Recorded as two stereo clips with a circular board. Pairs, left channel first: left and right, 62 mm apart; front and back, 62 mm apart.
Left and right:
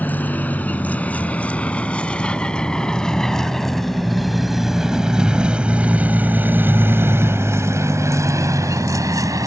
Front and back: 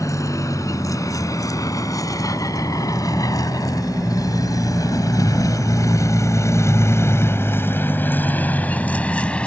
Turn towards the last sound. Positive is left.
turn(degrees=-70)